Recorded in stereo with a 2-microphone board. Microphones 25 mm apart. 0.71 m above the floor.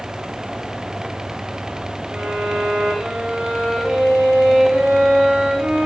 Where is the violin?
75° right (ahead or behind), 9 m.